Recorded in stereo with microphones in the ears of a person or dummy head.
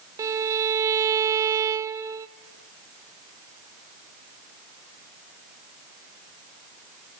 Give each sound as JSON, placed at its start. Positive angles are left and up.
{"t": 0.2, "sound": "a violin", "side_deg": -20, "distance_m": 0.7}